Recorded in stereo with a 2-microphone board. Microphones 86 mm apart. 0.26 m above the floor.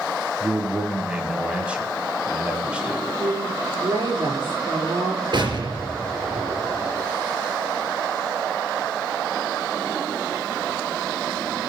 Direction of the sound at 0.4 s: 15° right (ahead or behind).